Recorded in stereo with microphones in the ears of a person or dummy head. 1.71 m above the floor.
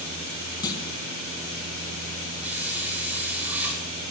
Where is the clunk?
20° left (ahead or behind), 3.5 m.